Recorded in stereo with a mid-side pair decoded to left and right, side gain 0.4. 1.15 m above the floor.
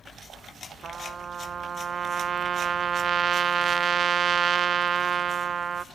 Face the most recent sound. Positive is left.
turn(degrees=-50)